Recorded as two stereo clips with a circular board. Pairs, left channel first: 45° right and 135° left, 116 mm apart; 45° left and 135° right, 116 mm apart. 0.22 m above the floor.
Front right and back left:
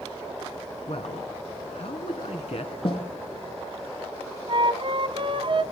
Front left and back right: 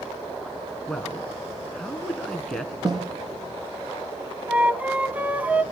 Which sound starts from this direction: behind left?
A flute, at 4.5 s.